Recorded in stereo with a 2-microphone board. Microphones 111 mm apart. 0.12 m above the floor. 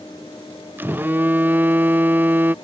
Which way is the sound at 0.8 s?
15° right (ahead or behind).